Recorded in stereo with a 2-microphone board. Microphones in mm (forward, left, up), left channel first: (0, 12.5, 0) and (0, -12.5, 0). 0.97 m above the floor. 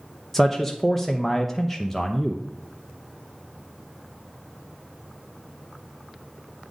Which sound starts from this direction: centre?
A man speaking, at 0.3 s.